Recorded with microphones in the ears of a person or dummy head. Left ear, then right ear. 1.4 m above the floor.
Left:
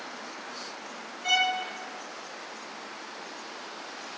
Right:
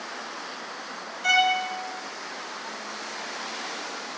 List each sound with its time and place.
1.2 s a violin: 45° right (ahead or behind), 1.4 m